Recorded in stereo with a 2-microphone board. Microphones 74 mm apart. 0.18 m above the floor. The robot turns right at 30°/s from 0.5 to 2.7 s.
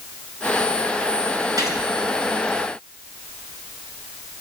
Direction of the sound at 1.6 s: 55° right (ahead or behind).